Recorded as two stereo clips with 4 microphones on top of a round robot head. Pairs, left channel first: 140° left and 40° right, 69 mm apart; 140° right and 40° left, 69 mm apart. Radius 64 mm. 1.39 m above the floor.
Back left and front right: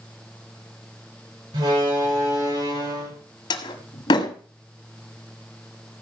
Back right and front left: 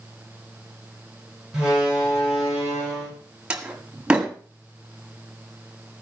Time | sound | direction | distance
1.5 | a door slam | 40° right | 6 m
3.5 | a door slam | 120° left | 1.7 m